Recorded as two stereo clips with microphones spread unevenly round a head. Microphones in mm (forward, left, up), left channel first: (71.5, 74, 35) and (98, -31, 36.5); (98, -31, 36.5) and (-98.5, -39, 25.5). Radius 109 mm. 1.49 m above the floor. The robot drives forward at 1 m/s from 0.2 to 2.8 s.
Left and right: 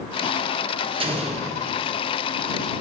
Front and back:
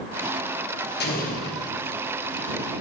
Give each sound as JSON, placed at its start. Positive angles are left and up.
{"t": 1.0, "sound": "an explosion", "azimuth_deg": -35, "distance_m": 1.1}